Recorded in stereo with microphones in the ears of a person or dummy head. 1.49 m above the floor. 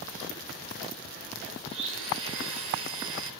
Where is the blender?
70° right (ahead or behind), 4.5 m.